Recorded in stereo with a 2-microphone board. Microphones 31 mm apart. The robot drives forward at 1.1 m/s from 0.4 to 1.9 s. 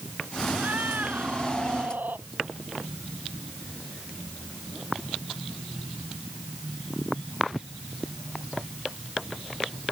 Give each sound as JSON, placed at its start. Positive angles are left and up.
{"t": 0.5, "sound": "a cat meowing", "side_deg": -75}